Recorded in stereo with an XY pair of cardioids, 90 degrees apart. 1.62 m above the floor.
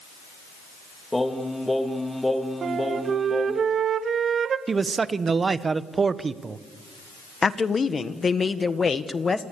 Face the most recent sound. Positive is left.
turn(degrees=35)